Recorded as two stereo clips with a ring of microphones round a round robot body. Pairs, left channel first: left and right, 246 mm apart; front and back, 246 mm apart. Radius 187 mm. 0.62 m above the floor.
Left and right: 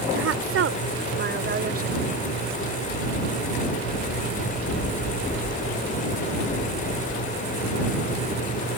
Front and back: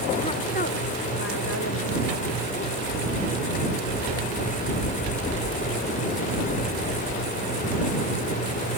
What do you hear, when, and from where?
0.1 s a woman speaking: 75° right; by 2.0 s 35° right